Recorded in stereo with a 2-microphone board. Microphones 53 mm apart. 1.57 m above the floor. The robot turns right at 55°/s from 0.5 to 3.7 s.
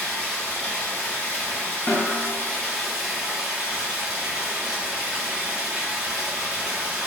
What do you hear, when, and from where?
0.0 s running water: 15° left (ahead or behind), 1.1 m; by 7.1 s 15° right (ahead or behind), 1.1 m
1.9 s a snare drum: 50° left (ahead or behind), 0.9 m; by 2.3 s 70° left (ahead or behind), 0.9 m